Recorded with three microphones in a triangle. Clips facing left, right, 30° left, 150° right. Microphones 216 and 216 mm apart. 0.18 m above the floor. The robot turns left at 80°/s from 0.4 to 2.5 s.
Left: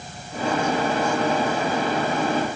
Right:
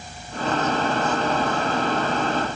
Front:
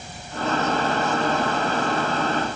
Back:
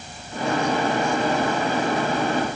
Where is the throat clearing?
No throat clearing in this recording.